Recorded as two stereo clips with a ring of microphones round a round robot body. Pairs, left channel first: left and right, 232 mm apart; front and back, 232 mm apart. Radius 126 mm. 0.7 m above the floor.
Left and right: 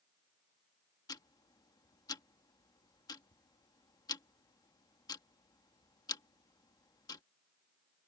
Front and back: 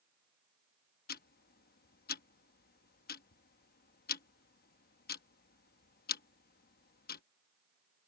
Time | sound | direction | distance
1.1 | ticking | 25° left | ?